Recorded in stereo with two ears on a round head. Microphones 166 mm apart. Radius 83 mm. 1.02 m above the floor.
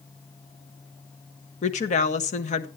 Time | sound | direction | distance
1.6 | a woman speaking | 40° left (ahead or behind) | 0.9 m